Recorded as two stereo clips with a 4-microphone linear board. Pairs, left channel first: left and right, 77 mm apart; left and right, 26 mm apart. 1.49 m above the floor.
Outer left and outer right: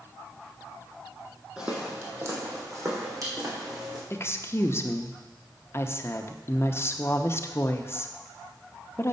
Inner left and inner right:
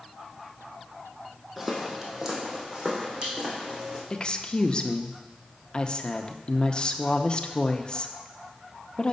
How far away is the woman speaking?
About 0.7 m.